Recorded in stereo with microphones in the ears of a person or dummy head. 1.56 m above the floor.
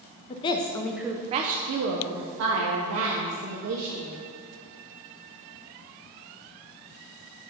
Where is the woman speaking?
30° left (ahead or behind), 0.7 m; by 4.1 s 70° right (ahead or behind), 1.8 m.